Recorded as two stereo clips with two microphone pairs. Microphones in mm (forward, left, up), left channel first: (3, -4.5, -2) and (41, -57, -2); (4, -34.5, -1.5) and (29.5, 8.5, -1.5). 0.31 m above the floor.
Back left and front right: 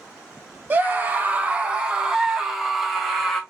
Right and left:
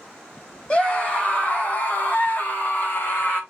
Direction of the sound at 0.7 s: 75° right.